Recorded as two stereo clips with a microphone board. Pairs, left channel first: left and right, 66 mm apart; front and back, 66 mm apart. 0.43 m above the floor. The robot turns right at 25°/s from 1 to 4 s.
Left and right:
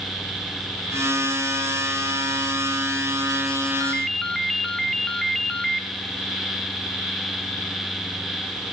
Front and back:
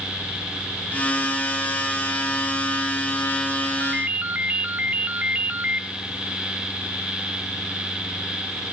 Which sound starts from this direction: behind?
A ringtone, at 3.8 s.